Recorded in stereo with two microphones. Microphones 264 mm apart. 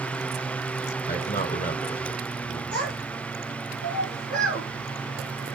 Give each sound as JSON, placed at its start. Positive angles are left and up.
{"t": 1.1, "sound": "a man speaking", "side_deg": 35, "distance_m": 1.7}
{"t": 2.7, "sound": "a child speaking", "side_deg": 70, "distance_m": 3.0}